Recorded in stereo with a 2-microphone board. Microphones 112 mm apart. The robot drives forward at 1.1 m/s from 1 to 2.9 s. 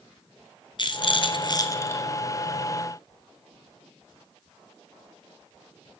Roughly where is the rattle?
Left.